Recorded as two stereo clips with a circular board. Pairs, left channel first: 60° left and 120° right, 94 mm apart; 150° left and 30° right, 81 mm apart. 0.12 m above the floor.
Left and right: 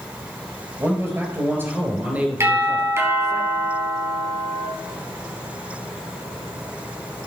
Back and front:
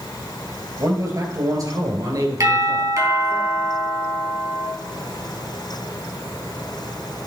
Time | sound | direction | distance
0.8 | a man speaking | 65° right | 3 m
2.4 | a doorbell | 70° right | 3.5 m